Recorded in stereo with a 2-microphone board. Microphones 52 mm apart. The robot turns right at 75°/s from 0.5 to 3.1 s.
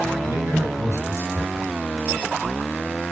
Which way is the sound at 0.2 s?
100° right.